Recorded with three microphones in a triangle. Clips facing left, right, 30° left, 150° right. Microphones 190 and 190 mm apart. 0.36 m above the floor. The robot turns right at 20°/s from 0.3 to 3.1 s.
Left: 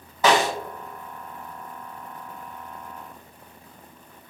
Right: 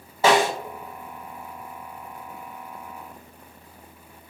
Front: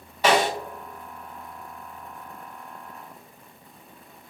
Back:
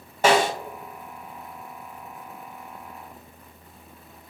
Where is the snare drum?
140° right, 2.0 m.